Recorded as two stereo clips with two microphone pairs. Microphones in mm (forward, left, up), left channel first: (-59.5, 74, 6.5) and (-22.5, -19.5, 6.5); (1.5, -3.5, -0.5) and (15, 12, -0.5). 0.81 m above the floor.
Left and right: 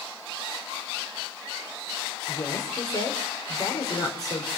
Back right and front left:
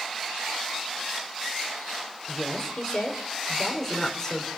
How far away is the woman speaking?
About 3.5 m.